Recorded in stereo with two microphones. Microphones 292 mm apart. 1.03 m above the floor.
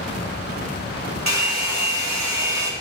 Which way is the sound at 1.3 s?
65° right (ahead or behind).